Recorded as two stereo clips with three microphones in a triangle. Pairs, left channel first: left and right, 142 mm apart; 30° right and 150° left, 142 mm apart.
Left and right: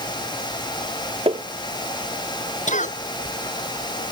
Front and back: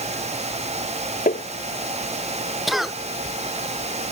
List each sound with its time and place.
1.3 s tapping: 40° right
2.7 s a cough: 60° left